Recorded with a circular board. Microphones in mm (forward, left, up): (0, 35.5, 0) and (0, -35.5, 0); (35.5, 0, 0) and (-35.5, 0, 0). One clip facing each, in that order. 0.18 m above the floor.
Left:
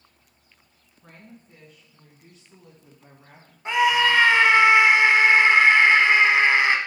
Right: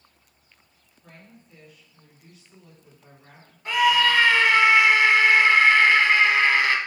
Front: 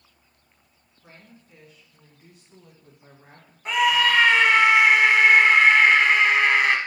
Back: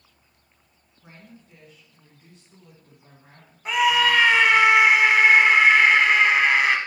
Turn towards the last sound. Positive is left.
turn(degrees=95)